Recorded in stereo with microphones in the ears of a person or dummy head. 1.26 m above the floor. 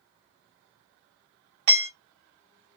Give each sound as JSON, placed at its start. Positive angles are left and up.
{"t": 1.7, "sound": "hammering", "side_deg": -40, "distance_m": 3.0}